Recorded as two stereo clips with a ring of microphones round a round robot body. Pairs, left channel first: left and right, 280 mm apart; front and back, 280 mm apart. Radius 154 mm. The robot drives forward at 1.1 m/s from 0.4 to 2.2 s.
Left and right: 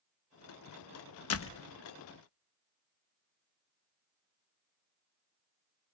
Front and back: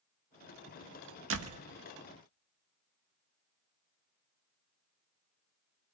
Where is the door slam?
130° left, 1.0 m; by 1.6 s 140° left, 1.2 m.